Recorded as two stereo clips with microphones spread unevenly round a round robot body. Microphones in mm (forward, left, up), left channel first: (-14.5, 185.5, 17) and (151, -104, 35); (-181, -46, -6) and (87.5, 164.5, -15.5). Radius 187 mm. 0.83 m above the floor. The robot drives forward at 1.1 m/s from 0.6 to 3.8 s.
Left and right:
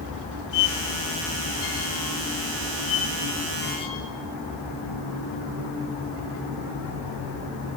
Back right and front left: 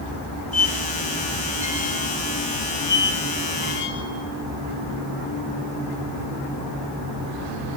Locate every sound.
0.5 s a squeak: 130° left, 2.0 m; by 4.1 s 165° left, 5 m